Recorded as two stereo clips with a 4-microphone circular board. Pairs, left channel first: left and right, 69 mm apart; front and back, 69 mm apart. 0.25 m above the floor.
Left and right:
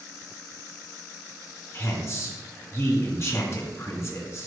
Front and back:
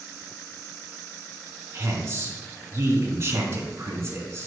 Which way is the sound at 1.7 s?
135° left.